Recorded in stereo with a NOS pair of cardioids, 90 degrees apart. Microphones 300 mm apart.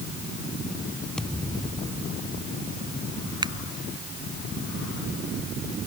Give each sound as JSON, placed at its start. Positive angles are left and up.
{"t": 1.2, "sound": "a thud", "azimuth_deg": 5}
{"t": 3.4, "sound": "a finger snap", "azimuth_deg": -15}